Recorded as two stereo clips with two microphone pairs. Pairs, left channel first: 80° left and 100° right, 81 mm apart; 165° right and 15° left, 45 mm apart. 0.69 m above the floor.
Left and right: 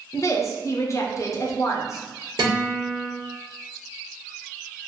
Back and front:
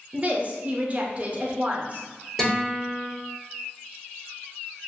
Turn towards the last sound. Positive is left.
turn(degrees=-80)